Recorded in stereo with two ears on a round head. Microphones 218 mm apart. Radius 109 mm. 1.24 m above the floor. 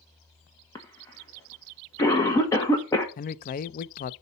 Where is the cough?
15° left (ahead or behind), 1.3 m.